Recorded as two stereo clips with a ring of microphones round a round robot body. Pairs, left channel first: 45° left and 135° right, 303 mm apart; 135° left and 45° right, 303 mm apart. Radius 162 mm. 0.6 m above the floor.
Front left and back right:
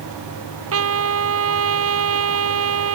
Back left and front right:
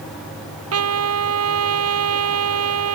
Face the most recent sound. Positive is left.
turn(degrees=-90)